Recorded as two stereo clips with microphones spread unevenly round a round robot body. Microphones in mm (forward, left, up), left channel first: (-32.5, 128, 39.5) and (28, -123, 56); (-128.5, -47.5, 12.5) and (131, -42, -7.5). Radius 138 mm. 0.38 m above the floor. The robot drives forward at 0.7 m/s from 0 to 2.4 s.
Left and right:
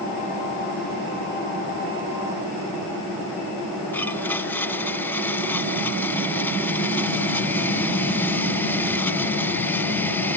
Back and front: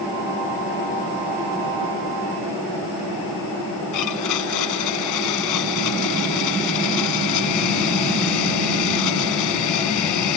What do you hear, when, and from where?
3.9 s a blender: 175° right